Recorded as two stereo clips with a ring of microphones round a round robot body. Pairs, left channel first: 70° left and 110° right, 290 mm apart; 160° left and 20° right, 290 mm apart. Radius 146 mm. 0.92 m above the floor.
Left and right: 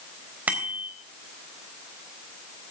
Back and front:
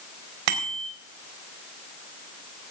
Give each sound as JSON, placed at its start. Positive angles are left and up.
{"t": 0.5, "sound": "a bicycle bell", "azimuth_deg": -30, "distance_m": 3.5}